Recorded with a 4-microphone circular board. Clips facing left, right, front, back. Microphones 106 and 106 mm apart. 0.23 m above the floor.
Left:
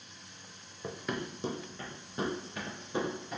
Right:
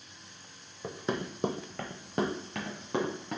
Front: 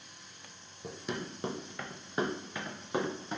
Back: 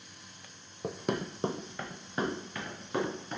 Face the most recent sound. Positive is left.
turn(degrees=-70)